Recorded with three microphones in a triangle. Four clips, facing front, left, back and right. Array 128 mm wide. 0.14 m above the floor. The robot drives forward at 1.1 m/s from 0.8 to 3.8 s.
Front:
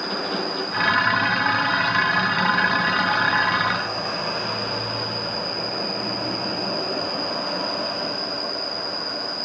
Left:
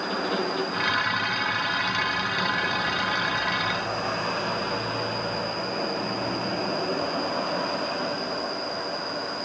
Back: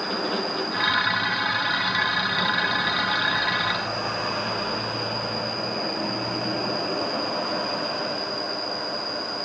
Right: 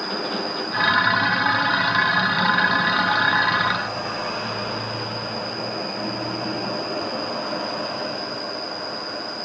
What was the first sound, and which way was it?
An insect, 25° right.